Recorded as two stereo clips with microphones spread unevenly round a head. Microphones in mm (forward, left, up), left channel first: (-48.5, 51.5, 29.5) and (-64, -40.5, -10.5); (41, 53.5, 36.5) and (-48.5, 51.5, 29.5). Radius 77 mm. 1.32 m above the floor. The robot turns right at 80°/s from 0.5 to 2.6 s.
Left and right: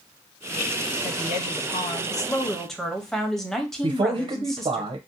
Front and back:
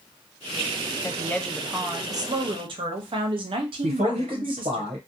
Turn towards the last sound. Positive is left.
turn(degrees=-140)